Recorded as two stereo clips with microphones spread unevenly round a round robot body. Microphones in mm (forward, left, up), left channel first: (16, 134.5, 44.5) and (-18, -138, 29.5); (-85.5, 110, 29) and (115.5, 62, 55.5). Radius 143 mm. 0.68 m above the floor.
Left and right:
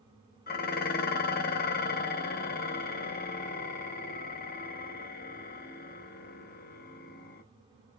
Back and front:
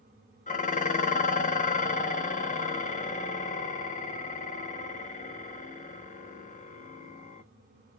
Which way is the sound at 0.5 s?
135° left.